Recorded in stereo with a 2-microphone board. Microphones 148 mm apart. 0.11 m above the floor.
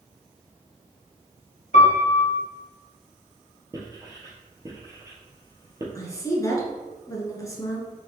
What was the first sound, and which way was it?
A piano, 60° left (ahead or behind).